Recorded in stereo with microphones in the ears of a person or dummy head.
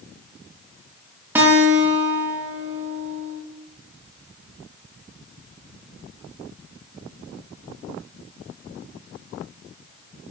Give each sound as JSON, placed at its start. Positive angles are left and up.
{"t": 1.4, "sound": "a guitar", "side_deg": -10, "distance_m": 2.5}